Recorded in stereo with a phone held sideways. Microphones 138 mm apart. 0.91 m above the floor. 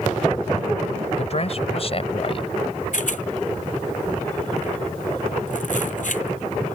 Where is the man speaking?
50° left (ahead or behind); by 2.5 s 45° left (ahead or behind).